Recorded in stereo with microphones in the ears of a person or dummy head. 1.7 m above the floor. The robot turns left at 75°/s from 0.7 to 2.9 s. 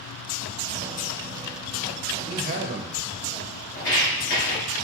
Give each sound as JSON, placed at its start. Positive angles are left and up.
{"t": 2.3, "sound": "a man speaking", "azimuth_deg": -30, "distance_m": 0.6}
{"t": 3.8, "sound": "footsteps", "side_deg": 20, "distance_m": 1.7}